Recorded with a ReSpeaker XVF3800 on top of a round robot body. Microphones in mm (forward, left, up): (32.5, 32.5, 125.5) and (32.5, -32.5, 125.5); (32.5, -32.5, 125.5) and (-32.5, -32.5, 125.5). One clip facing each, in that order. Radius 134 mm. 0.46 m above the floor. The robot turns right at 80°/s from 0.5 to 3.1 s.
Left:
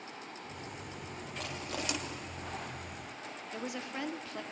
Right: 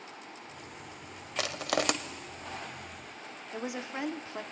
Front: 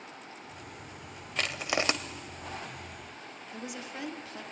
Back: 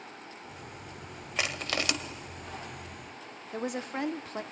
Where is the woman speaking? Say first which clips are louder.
Right 3 dB, back 8 dB; 150° right, 1.1 m.